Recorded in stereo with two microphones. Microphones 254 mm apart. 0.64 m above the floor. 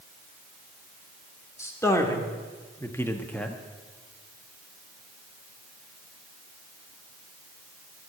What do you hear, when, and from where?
1.6 s a man speaking: 10° left (ahead or behind), 1.8 m; by 3.6 s 5° left (ahead or behind), 0.8 m